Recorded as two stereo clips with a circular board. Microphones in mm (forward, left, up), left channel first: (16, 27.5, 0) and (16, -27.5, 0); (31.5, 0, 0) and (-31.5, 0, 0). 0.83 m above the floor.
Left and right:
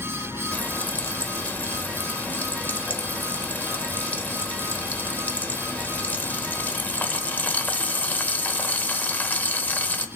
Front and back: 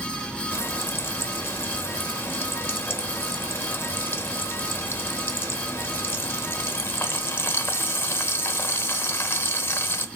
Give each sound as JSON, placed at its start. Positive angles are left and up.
{"t": 0.5, "sound": "frying", "azimuth_deg": 40, "distance_m": 0.8}